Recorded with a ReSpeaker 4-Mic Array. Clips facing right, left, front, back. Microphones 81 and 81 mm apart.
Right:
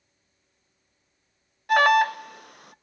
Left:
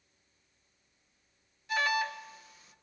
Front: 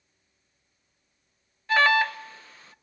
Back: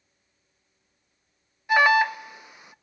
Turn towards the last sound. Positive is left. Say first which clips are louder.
# right 12 dB, back 2 dB
turn(degrees=-105)